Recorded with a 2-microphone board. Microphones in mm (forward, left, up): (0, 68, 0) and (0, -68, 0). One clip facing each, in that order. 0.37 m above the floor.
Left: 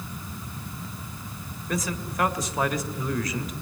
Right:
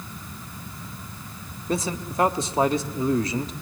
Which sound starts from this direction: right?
A man speaking, at 1.7 s.